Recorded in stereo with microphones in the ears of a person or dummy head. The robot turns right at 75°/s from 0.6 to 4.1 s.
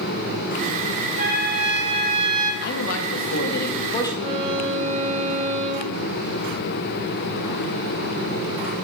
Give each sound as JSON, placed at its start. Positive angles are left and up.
{"t": 1.2, "sound": "a trumpet", "azimuth_deg": -140, "distance_m": 2.0}
{"t": 2.6, "sound": "a man speaking", "azimuth_deg": 50, "distance_m": 2.0}
{"t": 4.2, "sound": "a violin", "side_deg": -55, "distance_m": 3.5}